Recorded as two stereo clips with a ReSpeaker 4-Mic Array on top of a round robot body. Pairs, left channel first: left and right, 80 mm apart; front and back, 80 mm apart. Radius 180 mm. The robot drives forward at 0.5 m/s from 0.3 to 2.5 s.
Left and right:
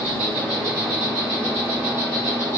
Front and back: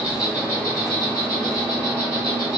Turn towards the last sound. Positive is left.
turn(degrees=-155)